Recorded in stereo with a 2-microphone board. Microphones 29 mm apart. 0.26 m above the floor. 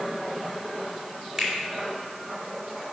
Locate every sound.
1.4 s a finger snap: centre (ahead or behind), 3 m